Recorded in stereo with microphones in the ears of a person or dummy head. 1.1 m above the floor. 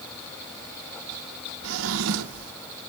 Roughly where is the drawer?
Right.